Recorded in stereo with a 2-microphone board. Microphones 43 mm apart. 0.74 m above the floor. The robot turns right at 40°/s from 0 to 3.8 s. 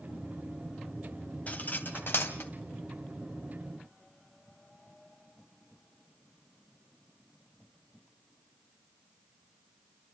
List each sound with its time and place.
1.5 s cutlery clinking: 35° left (ahead or behind), 2.5 m; by 2.5 s 80° left, 2.5 m